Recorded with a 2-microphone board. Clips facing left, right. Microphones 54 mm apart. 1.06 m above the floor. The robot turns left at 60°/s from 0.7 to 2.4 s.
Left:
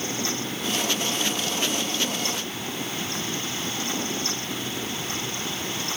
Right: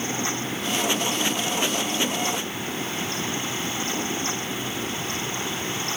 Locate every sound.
Only background noise.